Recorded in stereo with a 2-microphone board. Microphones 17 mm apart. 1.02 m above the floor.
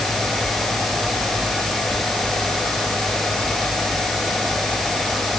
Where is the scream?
I don't hear a scream.